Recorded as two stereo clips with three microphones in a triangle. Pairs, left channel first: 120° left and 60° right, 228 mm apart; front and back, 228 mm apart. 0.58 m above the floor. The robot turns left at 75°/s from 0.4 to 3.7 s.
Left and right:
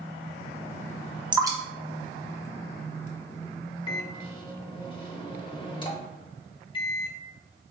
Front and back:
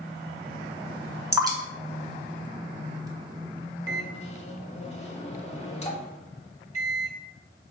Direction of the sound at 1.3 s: 110° right.